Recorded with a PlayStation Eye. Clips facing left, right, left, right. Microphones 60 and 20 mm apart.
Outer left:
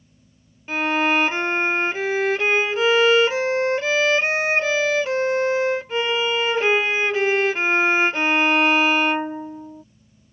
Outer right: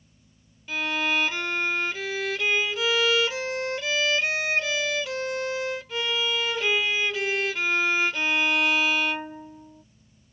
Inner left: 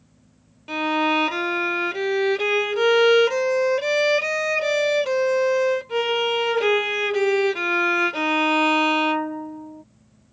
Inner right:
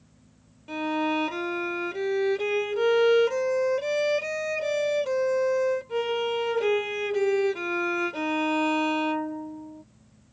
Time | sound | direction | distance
0.7 | a violin | 40° left (ahead or behind) | ?